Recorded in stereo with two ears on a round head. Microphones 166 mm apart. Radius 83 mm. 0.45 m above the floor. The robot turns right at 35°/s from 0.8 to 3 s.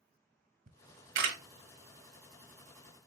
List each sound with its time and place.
0.7 s a camera shutter: 55° right (ahead or behind), 1.1 m; by 1.4 s 65° right (ahead or behind), 1.1 m